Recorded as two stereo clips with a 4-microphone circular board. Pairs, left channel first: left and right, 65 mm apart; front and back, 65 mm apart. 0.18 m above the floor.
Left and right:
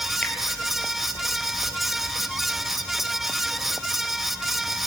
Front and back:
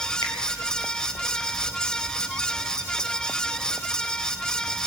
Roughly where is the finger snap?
Ahead.